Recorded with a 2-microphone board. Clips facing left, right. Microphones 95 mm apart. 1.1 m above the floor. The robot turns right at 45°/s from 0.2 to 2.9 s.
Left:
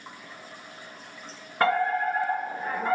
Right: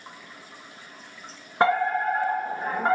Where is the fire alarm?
155° right, 2.5 m; by 3.0 s 95° right, 2.5 m.